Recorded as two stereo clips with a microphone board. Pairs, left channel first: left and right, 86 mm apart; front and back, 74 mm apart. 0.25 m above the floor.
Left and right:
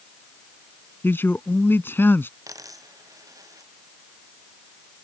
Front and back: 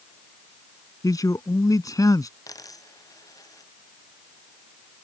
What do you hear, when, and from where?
1.0 s a man speaking: 30° left
2.5 s a dropped coin: 40° right